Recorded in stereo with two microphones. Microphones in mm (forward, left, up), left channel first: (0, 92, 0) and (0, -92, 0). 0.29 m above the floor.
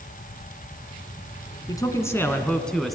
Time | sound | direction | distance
1.7 | a man speaking | 20° left (ahead or behind) | 3 m